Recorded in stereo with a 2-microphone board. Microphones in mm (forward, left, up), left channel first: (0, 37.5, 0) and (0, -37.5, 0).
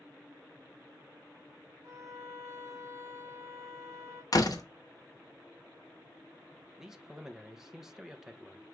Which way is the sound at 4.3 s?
55° left (ahead or behind).